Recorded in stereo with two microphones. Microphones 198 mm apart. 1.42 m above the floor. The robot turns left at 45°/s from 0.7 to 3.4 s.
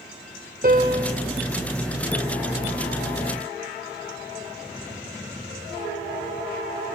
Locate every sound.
0.6 s a piano: 45° right (ahead or behind), 1.4 m; by 1.1 s 35° right (ahead or behind), 1.4 m